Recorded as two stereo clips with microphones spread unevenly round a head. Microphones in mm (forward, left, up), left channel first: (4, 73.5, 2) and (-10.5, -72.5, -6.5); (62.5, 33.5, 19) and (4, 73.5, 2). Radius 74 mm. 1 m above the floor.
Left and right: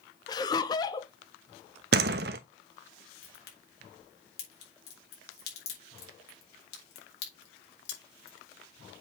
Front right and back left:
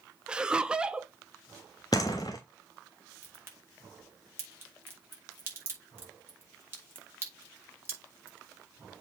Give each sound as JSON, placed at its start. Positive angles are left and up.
{"t": 0.3, "sound": "laughter", "azimuth_deg": 120, "distance_m": 0.8}
{"t": 1.9, "sound": "a door slam", "azimuth_deg": -95, "distance_m": 0.8}
{"t": 3.2, "sound": "a crack", "azimuth_deg": 95, "distance_m": 3.5}